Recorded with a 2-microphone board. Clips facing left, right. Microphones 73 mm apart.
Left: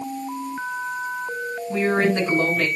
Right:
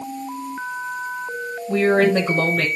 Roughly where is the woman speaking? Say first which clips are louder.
Right 4 dB; right.